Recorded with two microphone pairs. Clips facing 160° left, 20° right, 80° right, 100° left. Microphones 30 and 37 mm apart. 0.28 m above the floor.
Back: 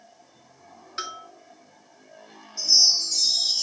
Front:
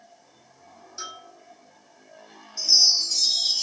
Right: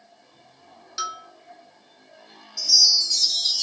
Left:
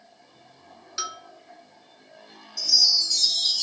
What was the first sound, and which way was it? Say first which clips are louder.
A bell: back 4 dB, right 3 dB; 175° right.